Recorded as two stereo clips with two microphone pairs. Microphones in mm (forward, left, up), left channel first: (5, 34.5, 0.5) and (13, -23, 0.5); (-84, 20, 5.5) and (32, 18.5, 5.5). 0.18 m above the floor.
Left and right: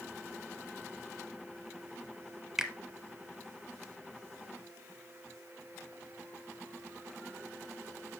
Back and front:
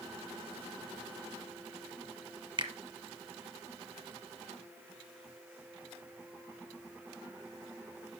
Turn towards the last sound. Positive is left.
turn(degrees=-5)